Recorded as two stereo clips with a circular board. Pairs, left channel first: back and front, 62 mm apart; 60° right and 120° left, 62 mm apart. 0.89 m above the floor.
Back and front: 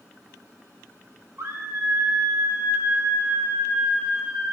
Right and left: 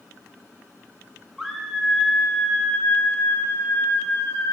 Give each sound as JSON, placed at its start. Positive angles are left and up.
{"t": 1.4, "sound": "a scream", "azimuth_deg": 40, "distance_m": 1.9}